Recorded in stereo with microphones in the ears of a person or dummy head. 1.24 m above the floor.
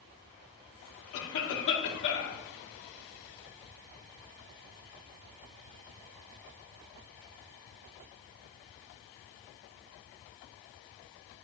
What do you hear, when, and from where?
1.1 s a cough: 65° left (ahead or behind), 3 m